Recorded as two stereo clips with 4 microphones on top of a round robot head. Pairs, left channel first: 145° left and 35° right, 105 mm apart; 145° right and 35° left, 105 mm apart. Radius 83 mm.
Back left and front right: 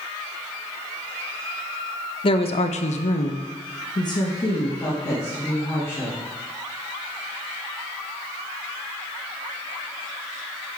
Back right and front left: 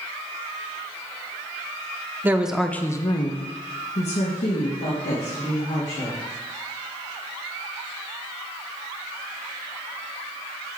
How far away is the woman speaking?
About 0.8 m.